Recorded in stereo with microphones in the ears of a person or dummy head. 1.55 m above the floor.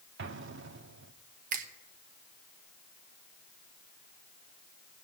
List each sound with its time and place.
0.2 s an explosion: 60° right (ahead or behind), 0.9 m
1.5 s a finger snap: 50° right (ahead or behind), 1.9 m